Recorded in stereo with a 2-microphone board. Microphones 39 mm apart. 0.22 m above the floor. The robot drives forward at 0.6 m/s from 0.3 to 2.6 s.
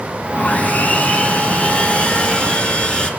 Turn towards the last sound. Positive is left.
turn(degrees=30)  # may be behind; listen again after turning